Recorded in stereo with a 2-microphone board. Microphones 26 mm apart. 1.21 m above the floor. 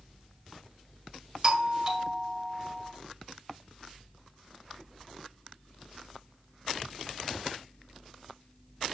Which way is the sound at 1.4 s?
20° right (ahead or behind).